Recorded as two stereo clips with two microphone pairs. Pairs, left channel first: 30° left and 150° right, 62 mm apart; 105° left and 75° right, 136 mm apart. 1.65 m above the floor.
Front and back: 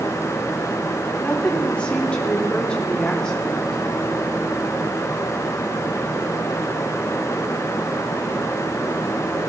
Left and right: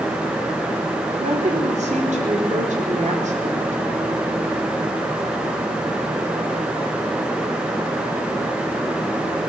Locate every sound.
1.2 s a woman speaking: 40° right, 5 m; by 3.8 s 50° right, 3.5 m